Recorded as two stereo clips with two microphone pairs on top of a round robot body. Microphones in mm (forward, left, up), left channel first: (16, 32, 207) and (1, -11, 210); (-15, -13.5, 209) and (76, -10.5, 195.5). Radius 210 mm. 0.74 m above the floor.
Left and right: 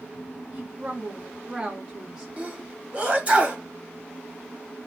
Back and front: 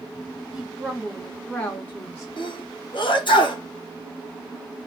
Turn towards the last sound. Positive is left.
turn(degrees=-165)